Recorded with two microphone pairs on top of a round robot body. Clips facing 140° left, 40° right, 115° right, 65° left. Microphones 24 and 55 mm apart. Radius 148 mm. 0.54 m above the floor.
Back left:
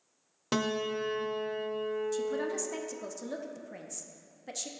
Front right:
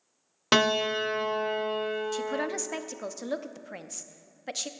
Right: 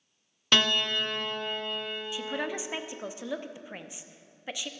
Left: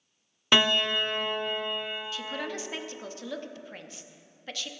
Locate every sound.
0.5 s a piano: 5° right, 0.6 m
2.1 s a man speaking: 35° right, 1.0 m